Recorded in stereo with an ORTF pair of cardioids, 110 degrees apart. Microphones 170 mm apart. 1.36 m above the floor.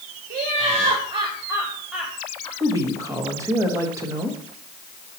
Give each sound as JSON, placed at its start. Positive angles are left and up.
{"t": 0.3, "sound": "laughter", "azimuth_deg": -50, "distance_m": 1.2}
{"t": 2.6, "sound": "a woman speaking", "azimuth_deg": -20, "distance_m": 1.8}